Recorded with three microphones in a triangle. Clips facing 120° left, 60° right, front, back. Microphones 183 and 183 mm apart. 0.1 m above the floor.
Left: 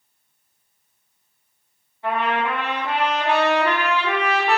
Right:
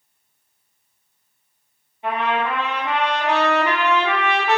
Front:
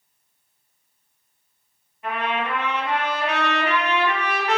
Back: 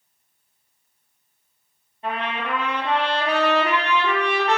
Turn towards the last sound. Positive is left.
turn(degrees=-125)